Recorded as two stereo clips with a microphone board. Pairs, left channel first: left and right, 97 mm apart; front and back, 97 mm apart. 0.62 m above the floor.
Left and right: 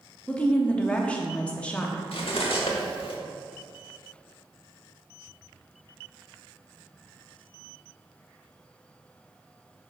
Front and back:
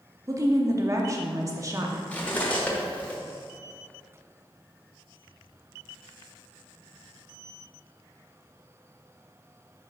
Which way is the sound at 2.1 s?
75° left.